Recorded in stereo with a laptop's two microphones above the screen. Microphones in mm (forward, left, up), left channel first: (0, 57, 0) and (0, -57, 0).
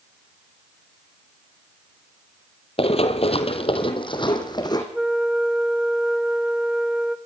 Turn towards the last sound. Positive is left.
turn(degrees=-5)  # may be behind; listen again after turning